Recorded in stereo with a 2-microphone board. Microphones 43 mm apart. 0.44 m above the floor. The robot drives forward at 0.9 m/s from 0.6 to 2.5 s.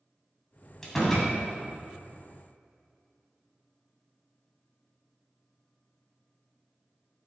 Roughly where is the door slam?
Centre.